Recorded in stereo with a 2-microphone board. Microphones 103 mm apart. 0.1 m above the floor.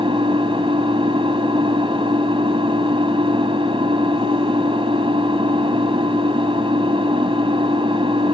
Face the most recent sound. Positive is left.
turn(degrees=-60)  # may be behind; listen again after turning